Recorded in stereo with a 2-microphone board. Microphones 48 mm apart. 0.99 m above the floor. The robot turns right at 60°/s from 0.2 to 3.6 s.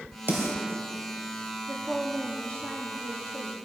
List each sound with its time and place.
0.3 s a snare drum: 50° right (ahead or behind), 3 m; by 0.6 s 70° right (ahead or behind), 3 m
1.7 s a woman speaking: 30° right, 2.0 m; by 3.5 s 85° left, 2.0 m